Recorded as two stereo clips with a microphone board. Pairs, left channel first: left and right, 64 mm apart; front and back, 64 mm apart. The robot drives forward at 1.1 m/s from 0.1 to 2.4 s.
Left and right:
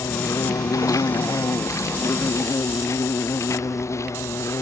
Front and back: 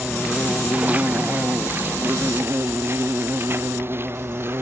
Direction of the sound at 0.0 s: 105° left.